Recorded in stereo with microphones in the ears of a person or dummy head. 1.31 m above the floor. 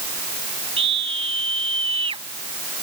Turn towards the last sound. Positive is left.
turn(degrees=-30)  # may be behind; listen again after turning